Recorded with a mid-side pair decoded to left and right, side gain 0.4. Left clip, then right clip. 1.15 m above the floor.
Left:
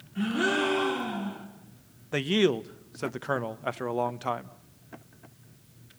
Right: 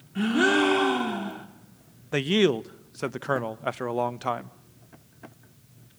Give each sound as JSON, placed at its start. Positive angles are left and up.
{"t": 0.1, "sound": "a gasp", "azimuth_deg": -50, "distance_m": 3.5}
{"t": 2.1, "sound": "a man speaking", "azimuth_deg": -15, "distance_m": 0.8}